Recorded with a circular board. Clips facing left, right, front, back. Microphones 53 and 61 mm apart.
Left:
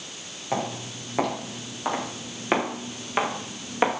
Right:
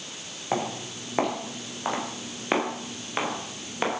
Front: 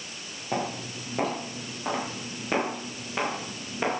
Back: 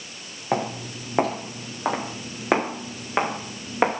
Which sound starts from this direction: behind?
Footsteps, at 0.5 s.